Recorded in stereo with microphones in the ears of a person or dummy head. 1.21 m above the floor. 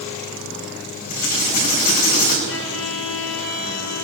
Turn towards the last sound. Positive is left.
turn(degrees=65)  # may be behind; listen again after turning